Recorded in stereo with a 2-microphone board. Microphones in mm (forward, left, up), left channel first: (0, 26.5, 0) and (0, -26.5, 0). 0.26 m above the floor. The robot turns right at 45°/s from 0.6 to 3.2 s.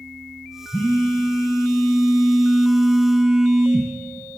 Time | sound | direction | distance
0.7 | a phone buzzing | 85° left | 1.2 m